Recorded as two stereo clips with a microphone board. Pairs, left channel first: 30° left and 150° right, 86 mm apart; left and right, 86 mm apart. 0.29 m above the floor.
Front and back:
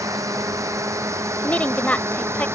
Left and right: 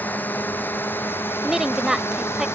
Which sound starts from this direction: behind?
A drone, at 0.0 s.